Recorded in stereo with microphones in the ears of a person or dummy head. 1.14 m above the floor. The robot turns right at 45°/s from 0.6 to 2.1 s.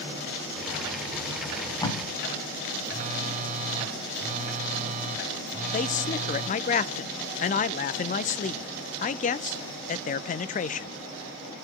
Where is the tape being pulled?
40° left (ahead or behind), 5 m; by 2.0 s 15° left (ahead or behind), 5 m.